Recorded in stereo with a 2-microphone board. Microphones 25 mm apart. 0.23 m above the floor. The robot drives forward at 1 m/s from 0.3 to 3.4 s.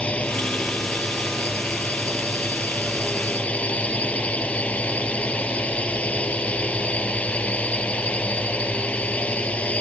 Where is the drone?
65° left (ahead or behind); by 9.8 s 70° left (ahead or behind).